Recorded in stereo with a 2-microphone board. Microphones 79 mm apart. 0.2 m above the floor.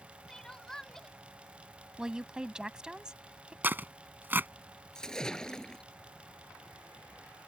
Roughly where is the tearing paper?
Right.